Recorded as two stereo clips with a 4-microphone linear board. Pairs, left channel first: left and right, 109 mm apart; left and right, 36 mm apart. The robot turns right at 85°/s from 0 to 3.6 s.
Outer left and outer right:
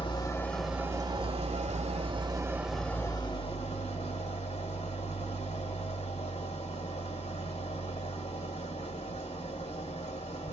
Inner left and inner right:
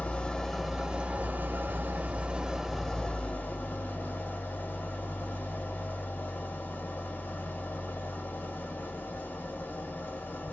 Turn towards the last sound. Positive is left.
turn(degrees=75)